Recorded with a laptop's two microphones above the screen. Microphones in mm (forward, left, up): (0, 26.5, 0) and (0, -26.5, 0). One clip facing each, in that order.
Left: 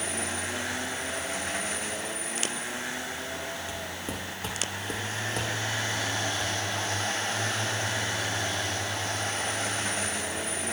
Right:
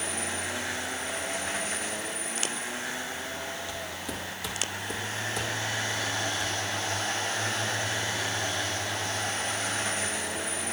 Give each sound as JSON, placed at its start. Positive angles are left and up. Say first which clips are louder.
{"t": 3.7, "sound": "footsteps", "louder": "even", "side_deg": 25, "distance_m": 1.6}